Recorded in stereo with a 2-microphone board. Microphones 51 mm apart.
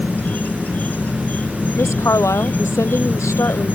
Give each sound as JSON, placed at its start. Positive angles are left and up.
{"t": 0.0, "sound": "an insect", "side_deg": 35}
{"t": 1.8, "sound": "a woman speaking", "side_deg": 75}